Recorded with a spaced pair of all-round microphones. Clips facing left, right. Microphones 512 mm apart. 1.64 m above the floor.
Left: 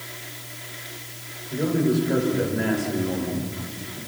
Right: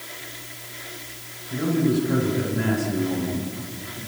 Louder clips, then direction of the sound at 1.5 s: Even; 30° right (ahead or behind).